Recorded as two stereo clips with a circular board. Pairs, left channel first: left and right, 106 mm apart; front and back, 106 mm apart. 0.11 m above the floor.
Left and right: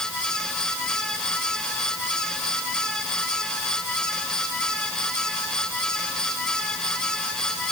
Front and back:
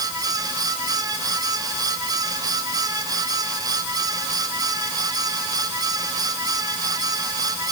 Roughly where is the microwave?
I don't hear a microwave.